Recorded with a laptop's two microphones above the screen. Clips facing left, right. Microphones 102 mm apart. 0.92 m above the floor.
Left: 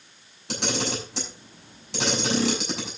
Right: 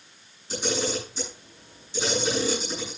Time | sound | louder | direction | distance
0.5 | a camera shutter | right 1 dB | 85° left | 5.5 m